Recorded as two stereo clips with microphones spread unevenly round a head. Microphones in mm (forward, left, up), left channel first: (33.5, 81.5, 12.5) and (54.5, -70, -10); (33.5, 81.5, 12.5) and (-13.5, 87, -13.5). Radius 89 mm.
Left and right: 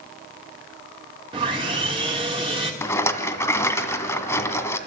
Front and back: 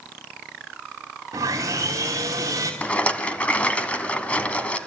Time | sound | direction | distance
1.3 | sawing | 145° right | 2.5 m
2.8 | a rattle | 30° left | 1.9 m